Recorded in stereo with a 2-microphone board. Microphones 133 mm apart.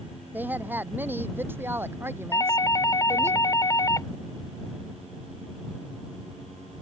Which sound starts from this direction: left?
A doorbell, at 2.3 s.